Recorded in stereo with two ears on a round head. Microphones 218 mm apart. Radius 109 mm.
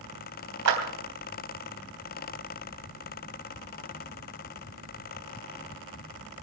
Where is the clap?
70° right (ahead or behind), 3.5 m.